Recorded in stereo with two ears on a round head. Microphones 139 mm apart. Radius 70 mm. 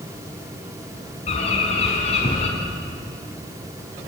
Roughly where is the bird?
Left.